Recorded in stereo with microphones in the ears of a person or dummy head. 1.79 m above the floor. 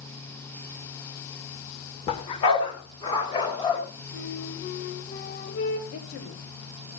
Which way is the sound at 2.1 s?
25° left (ahead or behind).